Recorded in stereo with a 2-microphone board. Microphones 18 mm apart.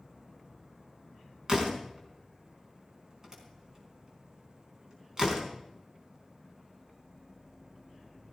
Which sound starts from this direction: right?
A door slam, at 1.5 s.